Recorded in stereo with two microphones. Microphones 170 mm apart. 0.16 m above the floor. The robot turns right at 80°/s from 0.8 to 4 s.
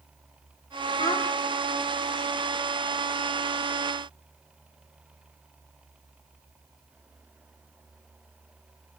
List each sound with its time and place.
1.0 s a child speaking: 30° left (ahead or behind), 4 m; by 1.3 s 5° left (ahead or behind), 4 m